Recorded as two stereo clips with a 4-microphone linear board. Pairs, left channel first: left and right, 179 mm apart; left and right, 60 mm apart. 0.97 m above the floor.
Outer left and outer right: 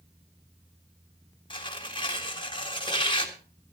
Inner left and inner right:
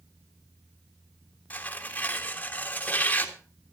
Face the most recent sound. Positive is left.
turn(degrees=25)  # may be behind; listen again after turning